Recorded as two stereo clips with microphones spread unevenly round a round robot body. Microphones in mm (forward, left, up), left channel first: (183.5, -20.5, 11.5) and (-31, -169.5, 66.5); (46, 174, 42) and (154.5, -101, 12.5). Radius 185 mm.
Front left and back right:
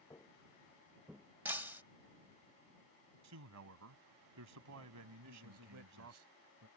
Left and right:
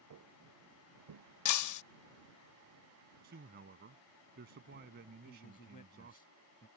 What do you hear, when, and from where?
0.1 s footsteps: 40° right; by 1.2 s 65° right
1.4 s breaking glass: 125° left
3.2 s a man speaking: 130° right
5.2 s a man speaking: straight behind